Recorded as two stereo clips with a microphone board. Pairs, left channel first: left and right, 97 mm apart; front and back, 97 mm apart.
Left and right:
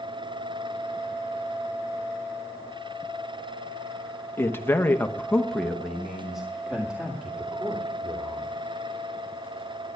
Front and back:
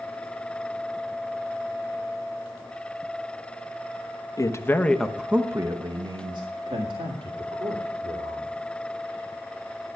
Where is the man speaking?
35° left, 1.1 m; by 8.6 s 170° right, 3.5 m.